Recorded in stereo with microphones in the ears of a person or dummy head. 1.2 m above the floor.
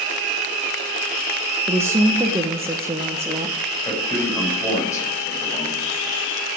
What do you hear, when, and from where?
1.7 s a woman speaking: 15° right (ahead or behind), 0.8 m
3.9 s a man speaking: 20° left (ahead or behind), 5 m